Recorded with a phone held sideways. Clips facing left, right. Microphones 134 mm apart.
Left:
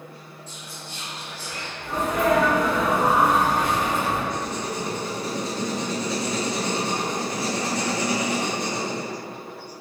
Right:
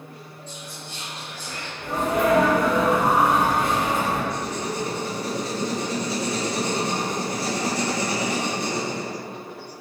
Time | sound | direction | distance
0.5 | whispering | 30° right (ahead or behind) | 1.5 m
1.8 | a sneeze | 50° right (ahead or behind) | 1.7 m
4.3 | writing | 10° right (ahead or behind) | 1.9 m